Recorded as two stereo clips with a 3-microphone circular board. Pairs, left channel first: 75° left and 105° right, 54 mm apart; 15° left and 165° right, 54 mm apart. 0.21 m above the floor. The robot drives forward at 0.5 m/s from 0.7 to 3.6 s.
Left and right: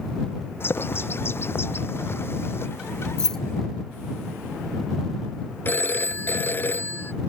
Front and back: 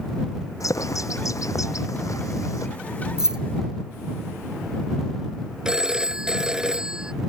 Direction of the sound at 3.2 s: 130° left.